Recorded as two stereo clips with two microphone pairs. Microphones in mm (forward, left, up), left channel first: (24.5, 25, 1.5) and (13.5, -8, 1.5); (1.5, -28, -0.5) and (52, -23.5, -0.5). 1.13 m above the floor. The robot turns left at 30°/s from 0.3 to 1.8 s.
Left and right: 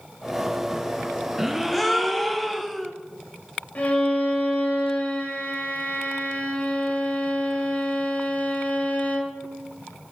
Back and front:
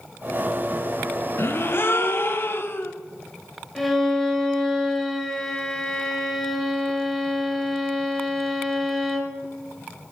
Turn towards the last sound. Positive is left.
turn(degrees=100)